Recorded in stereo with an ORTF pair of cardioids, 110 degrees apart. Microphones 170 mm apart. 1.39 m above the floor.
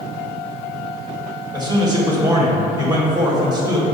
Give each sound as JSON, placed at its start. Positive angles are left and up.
{"t": 1.5, "sound": "a man speaking", "azimuth_deg": -25, "distance_m": 1.3}